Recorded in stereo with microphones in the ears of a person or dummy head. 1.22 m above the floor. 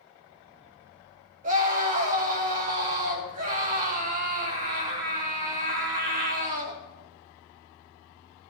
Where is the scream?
40° right (ahead or behind), 3 m.